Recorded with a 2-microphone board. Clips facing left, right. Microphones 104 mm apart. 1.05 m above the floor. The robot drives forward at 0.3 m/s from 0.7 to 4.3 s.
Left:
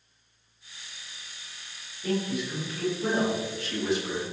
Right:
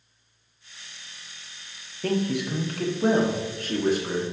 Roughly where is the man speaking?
Right.